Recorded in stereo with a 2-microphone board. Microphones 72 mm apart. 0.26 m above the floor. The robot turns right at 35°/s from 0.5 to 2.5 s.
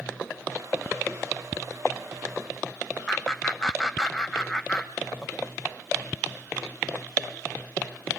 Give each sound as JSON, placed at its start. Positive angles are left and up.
{"t": 3.1, "sound": "laughter", "side_deg": 10, "distance_m": 1.1}